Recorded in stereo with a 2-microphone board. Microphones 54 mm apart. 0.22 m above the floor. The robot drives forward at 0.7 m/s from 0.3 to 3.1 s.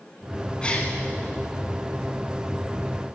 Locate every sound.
0.6 s a gasp: 20° left (ahead or behind), 0.9 m; by 0.9 s 25° left (ahead or behind), 0.8 m